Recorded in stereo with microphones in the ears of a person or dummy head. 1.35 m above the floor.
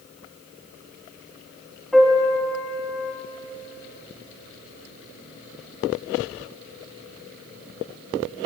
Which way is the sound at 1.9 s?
Centre (ahead or behind).